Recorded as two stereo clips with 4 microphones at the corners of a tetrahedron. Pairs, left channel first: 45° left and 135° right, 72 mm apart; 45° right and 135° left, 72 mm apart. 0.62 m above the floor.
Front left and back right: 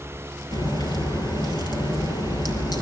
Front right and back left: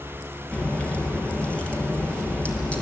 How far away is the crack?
About 5.5 m.